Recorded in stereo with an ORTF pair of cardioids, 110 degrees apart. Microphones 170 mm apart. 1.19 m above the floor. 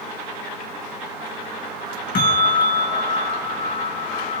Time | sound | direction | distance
2.1 | a bell | 60° left | 5.5 m